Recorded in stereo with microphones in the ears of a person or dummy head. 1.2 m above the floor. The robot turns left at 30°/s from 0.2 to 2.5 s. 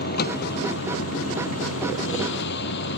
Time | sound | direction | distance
0.0 | a vehicle | 50° left (ahead or behind) | ?